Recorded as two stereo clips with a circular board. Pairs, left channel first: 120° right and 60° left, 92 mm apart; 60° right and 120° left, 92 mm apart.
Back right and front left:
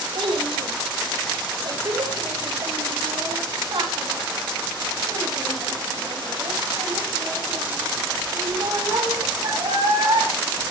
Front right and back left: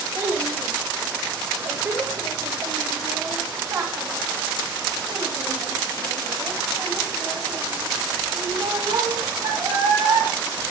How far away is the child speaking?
About 3.5 m.